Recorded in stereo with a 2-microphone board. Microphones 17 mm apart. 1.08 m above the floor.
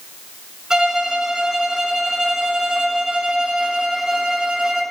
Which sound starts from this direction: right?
A violin, at 0.7 s.